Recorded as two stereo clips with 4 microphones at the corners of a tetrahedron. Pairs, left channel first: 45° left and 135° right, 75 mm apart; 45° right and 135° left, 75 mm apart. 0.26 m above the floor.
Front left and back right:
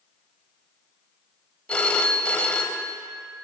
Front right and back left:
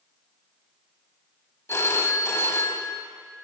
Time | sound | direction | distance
1.7 | a phone ringing | 20° right | 0.6 m